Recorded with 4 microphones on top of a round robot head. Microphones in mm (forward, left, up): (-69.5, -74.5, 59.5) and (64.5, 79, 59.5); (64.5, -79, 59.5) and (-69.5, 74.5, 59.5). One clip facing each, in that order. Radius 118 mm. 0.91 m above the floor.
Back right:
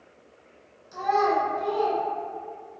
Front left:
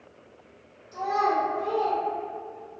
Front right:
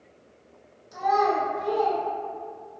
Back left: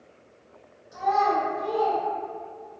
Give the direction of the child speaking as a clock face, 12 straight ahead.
3 o'clock.